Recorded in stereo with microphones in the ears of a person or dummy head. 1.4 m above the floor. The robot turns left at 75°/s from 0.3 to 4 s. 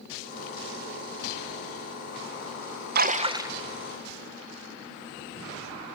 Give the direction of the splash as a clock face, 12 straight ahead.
4 o'clock.